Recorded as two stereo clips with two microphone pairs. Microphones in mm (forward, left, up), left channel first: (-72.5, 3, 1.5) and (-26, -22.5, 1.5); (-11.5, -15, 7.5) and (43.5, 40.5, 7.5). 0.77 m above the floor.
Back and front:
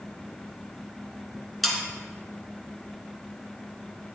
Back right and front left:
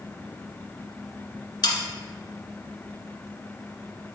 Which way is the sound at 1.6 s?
120° right.